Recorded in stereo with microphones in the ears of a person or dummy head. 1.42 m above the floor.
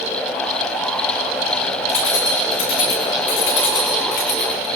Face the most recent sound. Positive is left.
turn(degrees=55)  # may be behind; listen again after turning